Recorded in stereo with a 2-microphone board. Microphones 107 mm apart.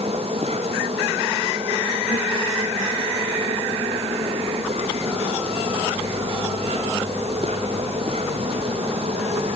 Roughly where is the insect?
Right.